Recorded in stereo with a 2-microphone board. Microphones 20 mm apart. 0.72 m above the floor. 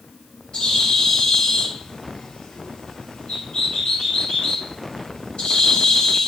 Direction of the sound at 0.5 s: 70° left (ahead or behind).